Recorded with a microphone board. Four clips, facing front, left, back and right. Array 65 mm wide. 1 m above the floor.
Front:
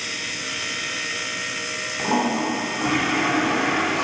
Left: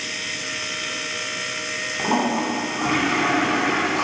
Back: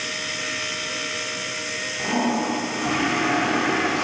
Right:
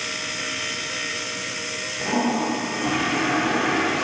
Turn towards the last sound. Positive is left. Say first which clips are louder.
# left 1 dB, front 1 dB
turn(degrees=70)